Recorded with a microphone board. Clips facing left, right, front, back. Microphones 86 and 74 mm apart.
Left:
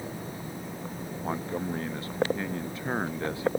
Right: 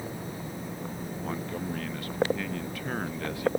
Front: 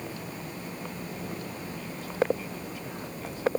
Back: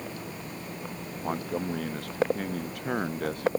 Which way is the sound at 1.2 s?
155° left.